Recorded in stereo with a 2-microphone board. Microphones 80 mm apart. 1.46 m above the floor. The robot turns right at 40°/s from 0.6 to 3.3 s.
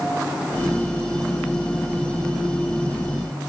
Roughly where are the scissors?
I don't hear scissors.